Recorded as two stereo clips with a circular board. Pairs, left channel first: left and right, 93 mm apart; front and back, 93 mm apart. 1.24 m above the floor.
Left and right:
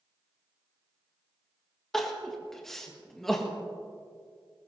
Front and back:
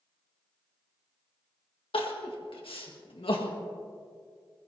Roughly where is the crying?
Ahead.